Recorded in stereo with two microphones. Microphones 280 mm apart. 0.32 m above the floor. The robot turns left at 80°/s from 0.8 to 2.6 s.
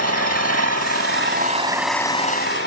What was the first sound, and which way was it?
An engine running, 95° right.